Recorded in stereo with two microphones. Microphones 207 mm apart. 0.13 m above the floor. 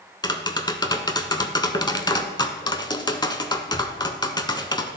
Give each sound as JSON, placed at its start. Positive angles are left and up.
{"t": 0.2, "sound": "tapping", "side_deg": 20, "distance_m": 0.5}